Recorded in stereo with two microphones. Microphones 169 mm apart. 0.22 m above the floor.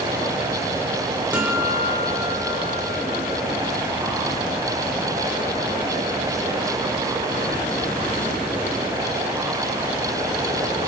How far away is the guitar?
About 4 m.